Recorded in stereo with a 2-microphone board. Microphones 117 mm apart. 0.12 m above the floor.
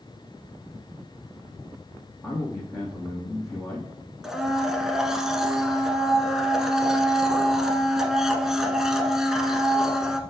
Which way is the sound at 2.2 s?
20° left (ahead or behind).